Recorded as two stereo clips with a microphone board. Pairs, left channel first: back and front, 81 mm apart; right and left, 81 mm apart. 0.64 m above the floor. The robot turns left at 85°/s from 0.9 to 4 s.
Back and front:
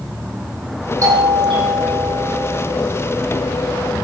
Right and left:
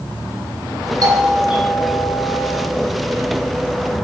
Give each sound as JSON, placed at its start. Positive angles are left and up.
{"t": 1.0, "sound": "a doorbell", "azimuth_deg": 50, "distance_m": 9.5}